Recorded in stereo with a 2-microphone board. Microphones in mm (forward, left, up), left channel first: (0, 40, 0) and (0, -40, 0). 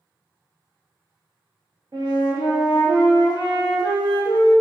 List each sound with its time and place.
1.9 s a flute: 55° right (ahead or behind), 1.7 m